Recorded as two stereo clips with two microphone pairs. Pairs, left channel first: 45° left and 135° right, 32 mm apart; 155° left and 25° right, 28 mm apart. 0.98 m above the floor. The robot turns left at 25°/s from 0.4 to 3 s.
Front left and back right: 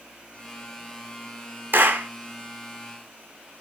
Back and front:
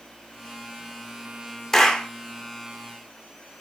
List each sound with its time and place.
1.7 s a clap: 135° right, 2 m; by 2.1 s 145° right, 2 m